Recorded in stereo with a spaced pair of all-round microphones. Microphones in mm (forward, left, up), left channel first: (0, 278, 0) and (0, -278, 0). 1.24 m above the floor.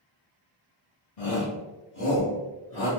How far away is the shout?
About 0.9 m.